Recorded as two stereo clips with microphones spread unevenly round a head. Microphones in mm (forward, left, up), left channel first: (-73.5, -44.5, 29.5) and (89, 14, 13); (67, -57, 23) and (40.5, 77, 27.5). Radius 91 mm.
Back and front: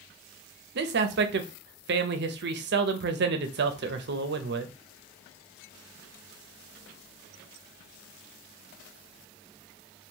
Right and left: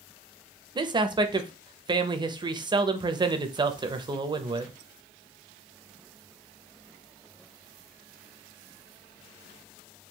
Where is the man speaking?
45° left, 0.6 m.